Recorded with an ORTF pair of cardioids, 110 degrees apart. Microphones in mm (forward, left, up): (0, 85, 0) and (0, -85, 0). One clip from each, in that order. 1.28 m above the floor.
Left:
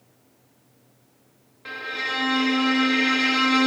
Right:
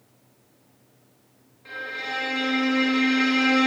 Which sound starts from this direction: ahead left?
A violin, at 1.6 s.